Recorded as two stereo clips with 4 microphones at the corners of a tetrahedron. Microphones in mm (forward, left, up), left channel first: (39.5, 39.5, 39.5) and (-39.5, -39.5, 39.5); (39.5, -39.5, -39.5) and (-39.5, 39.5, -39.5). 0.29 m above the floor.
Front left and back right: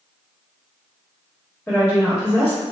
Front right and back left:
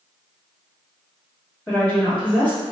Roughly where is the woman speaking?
Ahead.